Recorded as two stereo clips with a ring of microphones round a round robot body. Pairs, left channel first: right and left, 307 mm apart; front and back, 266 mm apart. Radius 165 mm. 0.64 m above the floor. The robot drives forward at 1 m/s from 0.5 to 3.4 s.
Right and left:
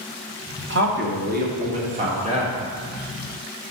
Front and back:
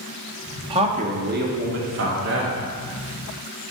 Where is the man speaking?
115° left, 1.5 m; by 2.6 s 160° left, 3 m.